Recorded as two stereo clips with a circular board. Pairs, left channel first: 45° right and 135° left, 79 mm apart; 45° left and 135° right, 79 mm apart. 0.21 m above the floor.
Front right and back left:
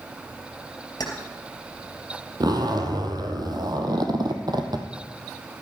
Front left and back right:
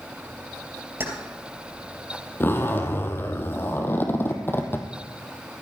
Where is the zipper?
105° left, 1.6 m.